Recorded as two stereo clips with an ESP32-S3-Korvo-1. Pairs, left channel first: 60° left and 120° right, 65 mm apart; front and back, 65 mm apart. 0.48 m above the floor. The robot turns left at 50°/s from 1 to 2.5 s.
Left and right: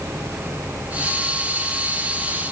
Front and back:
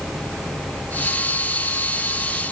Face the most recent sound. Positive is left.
No sound to turn to.